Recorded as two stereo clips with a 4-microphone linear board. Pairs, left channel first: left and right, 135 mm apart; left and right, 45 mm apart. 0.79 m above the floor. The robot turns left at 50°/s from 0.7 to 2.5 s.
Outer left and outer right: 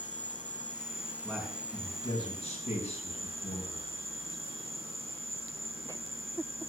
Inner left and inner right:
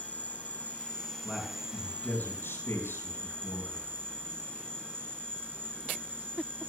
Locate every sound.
0.0 s an insect: 35° left, 1.1 m; by 6.7 s 55° right, 1.1 m
1.2 s a man speaking: 170° left, 5 m; by 3.9 s 105° left, 5 m